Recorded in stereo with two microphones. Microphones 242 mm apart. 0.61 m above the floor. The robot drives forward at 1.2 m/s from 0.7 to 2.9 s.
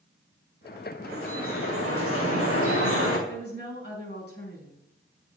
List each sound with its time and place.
1.0 s dripping: 65° left (ahead or behind), 5.5 m; by 3.2 s 80° left, 5 m
3.3 s a woman speaking: 50° left (ahead or behind), 5 m